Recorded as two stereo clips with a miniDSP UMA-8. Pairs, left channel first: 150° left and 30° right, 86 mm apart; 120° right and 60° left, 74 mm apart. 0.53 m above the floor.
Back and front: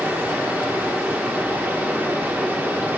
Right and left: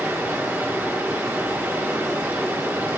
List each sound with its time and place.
0.0 s running water: 25° left, 1.3 m